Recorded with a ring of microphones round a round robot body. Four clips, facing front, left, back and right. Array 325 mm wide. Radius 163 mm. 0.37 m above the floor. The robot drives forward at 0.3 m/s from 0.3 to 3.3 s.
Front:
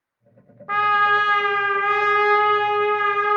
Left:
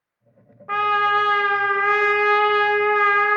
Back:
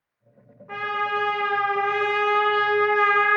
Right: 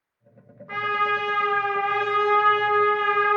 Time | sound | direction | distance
0.7 | a trumpet | 35° left | 0.7 m